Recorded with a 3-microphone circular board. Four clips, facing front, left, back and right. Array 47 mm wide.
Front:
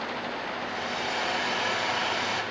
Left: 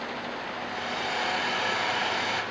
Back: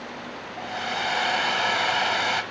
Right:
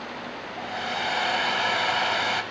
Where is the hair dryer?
145° right, 1.1 m.